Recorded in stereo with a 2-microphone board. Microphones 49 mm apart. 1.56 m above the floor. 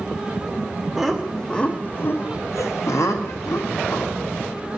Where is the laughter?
5° right (ahead or behind), 0.8 m; by 4.3 s 70° left (ahead or behind), 1.6 m.